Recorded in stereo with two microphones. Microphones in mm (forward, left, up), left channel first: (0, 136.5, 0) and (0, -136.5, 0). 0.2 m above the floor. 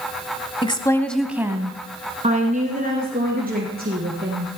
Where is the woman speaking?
20° left (ahead or behind), 1.1 m; by 4.6 s 35° right (ahead or behind), 3.5 m.